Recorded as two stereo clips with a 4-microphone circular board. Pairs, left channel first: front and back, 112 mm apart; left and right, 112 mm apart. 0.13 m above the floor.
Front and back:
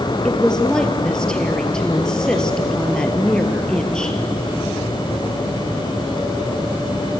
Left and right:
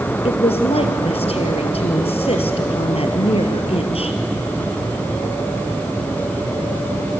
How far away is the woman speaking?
About 2.5 m.